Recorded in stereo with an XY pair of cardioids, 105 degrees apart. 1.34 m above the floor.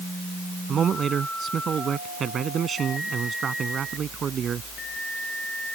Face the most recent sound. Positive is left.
turn(degrees=-45)